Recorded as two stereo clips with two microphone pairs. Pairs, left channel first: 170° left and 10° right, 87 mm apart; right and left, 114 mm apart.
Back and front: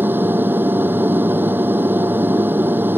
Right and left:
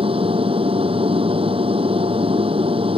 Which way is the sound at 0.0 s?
60° left.